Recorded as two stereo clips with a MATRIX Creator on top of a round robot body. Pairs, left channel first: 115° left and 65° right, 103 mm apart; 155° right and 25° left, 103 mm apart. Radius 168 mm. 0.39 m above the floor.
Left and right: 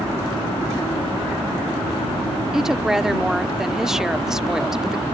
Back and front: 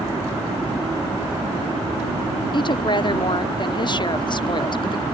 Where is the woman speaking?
150° right.